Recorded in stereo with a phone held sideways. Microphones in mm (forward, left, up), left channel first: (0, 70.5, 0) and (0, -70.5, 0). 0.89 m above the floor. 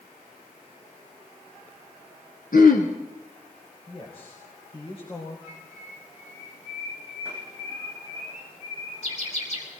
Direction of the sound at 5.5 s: 55° left (ahead or behind).